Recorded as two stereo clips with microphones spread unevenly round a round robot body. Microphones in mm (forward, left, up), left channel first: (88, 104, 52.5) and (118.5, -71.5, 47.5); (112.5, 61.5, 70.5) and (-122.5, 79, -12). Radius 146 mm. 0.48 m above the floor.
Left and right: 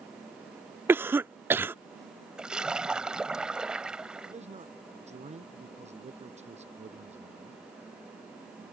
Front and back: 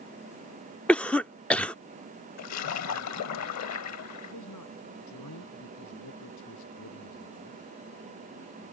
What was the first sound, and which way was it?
A cough, 135° right.